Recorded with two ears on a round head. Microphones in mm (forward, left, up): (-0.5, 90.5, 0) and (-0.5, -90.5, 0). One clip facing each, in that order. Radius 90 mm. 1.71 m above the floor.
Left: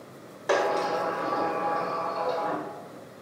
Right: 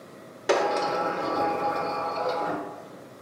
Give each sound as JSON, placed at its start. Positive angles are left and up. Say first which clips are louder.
{"t": 0.5, "sound": "a sliding door", "louder": "right 1 dB", "side_deg": -35, "distance_m": 1.1}